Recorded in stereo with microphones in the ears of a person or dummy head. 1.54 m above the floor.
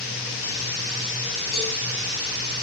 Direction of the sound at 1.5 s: 70° left (ahead or behind).